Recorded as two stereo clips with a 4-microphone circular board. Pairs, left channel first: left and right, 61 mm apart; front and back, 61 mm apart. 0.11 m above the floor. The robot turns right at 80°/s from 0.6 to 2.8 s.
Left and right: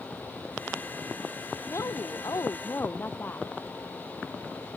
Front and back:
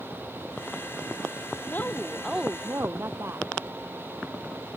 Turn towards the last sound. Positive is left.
turn(degrees=140)